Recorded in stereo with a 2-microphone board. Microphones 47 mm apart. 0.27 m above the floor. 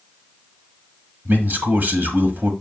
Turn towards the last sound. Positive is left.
turn(degrees=-40)  # may be behind; listen again after turning